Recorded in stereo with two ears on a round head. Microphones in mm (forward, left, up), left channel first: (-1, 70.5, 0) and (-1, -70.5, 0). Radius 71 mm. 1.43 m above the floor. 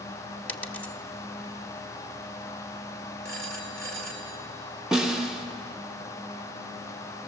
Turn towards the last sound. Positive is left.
turn(degrees=-5)  # may be behind; listen again after turning